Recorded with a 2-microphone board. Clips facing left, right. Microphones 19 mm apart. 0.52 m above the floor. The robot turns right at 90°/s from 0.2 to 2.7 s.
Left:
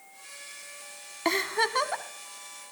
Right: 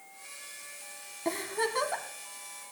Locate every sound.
1.2 s a giggle: 95° left, 0.7 m; by 2.0 s 170° left, 0.7 m